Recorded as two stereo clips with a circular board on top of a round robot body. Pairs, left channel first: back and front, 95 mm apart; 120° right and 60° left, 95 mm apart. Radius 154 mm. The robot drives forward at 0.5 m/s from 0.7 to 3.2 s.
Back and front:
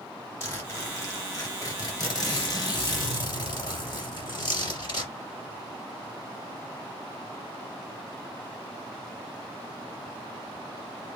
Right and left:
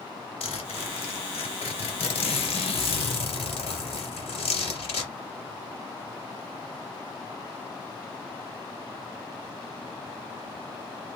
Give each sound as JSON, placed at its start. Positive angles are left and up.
{"t": 0.4, "sound": "a zipper", "azimuth_deg": -115, "distance_m": 2.5}